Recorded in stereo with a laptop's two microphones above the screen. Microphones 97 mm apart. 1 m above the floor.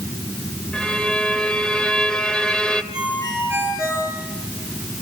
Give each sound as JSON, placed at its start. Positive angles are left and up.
{"t": 0.7, "sound": "a violin", "side_deg": 10, "distance_m": 2.0}
{"t": 2.9, "sound": "a ringtone", "side_deg": -10, "distance_m": 9.5}